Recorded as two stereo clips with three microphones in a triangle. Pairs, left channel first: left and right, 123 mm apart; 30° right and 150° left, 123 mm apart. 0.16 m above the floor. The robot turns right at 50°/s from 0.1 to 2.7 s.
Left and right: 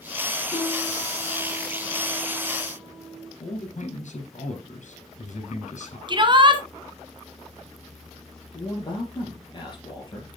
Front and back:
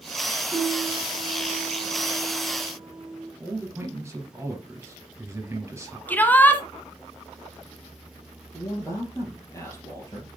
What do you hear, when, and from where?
0.5 s a piano: 95° left, 2 m; by 3.3 s 160° right, 2 m
3.4 s a man speaking: 80° left, 3.5 m
6.1 s a shout: 95° right, 1.7 m
8.5 s a man speaking: 35° left, 3.5 m